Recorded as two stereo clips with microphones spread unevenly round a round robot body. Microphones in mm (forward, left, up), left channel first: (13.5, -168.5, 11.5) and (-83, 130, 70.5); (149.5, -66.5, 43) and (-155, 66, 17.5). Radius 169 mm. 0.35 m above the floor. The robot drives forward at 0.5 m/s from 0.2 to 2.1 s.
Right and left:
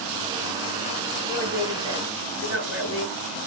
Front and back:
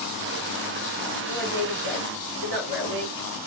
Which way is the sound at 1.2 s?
160° left.